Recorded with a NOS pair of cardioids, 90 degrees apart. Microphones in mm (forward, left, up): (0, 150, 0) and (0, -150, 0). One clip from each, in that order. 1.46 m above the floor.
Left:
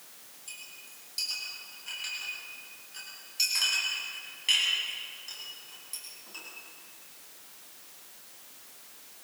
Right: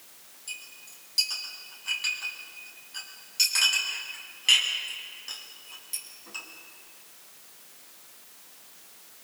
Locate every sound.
0.5 s a clink: 35° right, 9.5 m